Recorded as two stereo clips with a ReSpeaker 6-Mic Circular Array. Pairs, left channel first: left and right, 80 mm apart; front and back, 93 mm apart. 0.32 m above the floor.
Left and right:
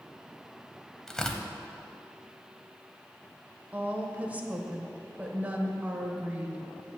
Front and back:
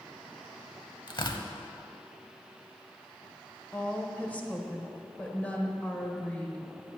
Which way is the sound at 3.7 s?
50° right.